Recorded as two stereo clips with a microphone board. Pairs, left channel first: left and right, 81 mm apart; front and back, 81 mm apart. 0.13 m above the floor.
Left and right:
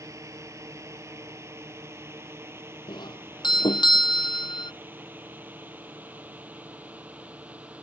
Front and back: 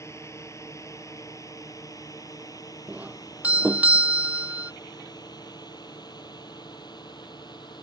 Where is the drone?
45° right; by 7.8 s 20° right.